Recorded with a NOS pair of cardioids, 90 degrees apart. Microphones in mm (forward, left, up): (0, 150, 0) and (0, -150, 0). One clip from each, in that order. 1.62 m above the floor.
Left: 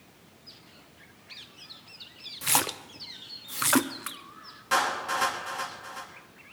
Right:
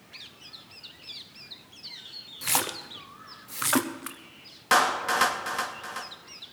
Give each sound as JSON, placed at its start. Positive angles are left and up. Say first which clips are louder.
{"t": 2.4, "sound": "a splash", "louder": "left 1 dB", "azimuth_deg": 10, "distance_m": 0.8}
{"t": 4.7, "sound": "a clap", "louder": "right 4 dB", "azimuth_deg": -60, "distance_m": 2.5}